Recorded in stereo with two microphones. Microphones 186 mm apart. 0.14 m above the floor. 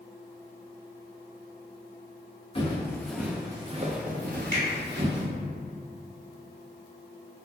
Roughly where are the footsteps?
Left.